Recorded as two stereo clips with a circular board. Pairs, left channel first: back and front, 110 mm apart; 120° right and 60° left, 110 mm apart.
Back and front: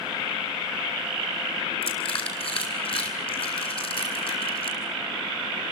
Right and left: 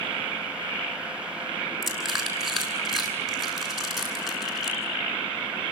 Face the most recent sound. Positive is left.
turn(degrees=150)